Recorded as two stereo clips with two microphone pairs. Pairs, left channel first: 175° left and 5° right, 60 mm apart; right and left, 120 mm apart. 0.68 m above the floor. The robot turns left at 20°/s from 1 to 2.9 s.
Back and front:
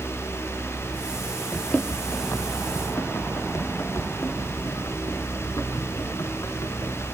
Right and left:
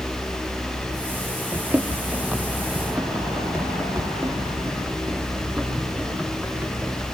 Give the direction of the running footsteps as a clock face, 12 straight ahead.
8 o'clock.